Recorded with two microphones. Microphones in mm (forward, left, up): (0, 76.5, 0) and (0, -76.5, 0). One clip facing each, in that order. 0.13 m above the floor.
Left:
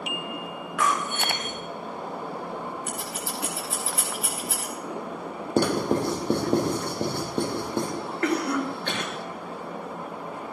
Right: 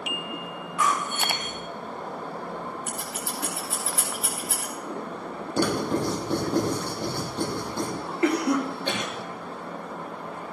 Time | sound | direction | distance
0.8 | breaking glass | 80° left | 5 m
2.9 | scissors | 10° left (ahead or behind) | 8 m
5.6 | writing | 55° left (ahead or behind) | 5 m
8.2 | a cough | 15° right (ahead or behind) | 3 m